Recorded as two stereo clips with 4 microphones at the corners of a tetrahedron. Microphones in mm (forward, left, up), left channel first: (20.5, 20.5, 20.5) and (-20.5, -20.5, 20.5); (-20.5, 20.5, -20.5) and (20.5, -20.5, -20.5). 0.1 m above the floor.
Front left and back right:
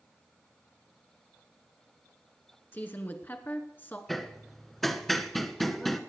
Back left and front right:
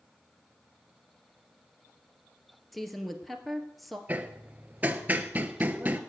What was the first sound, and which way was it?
A woman speaking, 45° left.